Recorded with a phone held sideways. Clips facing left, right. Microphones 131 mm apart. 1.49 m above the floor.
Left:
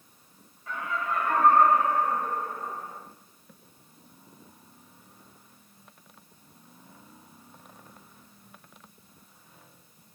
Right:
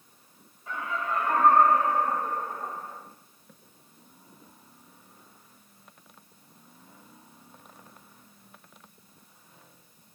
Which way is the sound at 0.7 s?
25° right (ahead or behind).